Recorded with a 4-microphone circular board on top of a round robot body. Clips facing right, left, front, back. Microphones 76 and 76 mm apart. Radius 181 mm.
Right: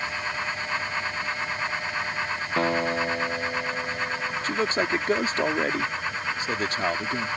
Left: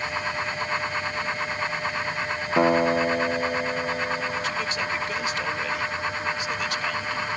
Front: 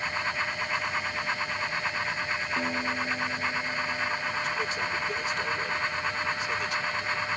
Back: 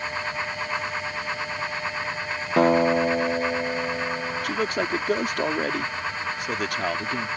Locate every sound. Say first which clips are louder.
2.6 s a guitar: left 5 dB, back 16 dB; 160° left
4.4 s a man speaking: right 3 dB, back 5 dB; 145° right